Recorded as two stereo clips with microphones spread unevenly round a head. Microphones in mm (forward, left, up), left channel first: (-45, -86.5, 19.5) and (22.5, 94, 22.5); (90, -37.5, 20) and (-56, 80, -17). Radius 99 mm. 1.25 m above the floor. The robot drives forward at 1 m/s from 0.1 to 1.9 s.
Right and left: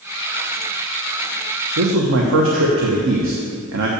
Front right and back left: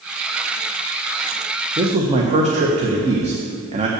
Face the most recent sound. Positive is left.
turn(degrees=90)